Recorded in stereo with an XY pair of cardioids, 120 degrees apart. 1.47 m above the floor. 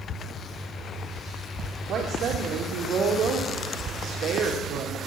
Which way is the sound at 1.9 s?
55° right.